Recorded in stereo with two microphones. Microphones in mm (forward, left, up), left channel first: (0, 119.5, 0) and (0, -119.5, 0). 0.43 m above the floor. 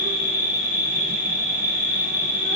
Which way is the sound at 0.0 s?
50° right (ahead or behind).